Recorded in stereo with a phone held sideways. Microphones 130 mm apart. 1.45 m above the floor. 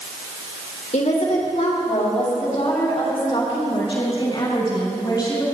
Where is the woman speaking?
65° left (ahead or behind), 2.5 m; by 5.5 s 30° left (ahead or behind), 5 m.